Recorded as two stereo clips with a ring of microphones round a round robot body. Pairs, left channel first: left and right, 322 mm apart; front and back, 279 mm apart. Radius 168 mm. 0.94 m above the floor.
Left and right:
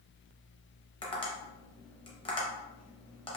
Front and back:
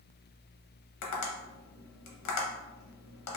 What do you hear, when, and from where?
1.0 s tapping: 15° left, 1.0 m